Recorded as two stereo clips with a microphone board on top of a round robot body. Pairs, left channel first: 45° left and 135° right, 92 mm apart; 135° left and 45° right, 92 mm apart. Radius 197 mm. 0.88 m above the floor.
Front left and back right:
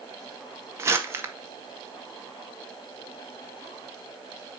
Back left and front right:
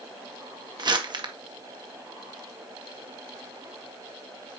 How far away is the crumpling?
About 1.8 m.